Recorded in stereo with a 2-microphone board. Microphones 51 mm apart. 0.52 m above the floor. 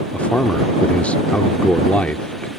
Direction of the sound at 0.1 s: 25° left (ahead or behind).